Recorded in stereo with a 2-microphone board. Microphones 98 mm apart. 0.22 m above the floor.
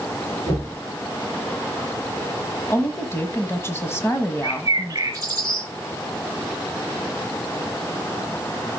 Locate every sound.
0.5 s knocking: 65° left (ahead or behind), 2 m
2.7 s a woman speaking: 25° left (ahead or behind), 1.2 m
4.4 s a bird: 35° right (ahead or behind), 2 m